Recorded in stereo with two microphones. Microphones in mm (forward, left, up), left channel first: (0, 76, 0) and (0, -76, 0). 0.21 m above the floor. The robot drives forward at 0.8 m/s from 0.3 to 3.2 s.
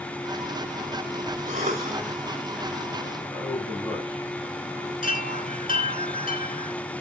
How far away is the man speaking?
About 7 m.